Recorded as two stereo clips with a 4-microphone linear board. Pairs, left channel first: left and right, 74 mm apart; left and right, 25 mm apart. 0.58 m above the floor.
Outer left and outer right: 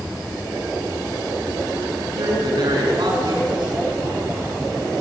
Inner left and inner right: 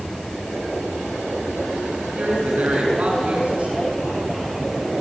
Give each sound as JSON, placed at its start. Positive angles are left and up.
{"t": 2.1, "sound": "a woman speaking", "side_deg": -75, "distance_m": 6.5}